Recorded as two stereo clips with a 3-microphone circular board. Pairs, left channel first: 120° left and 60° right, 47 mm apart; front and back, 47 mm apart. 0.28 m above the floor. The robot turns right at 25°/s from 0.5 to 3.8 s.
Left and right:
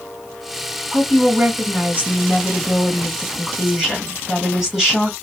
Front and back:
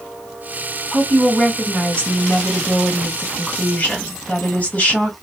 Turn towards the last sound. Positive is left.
turn(degrees=10)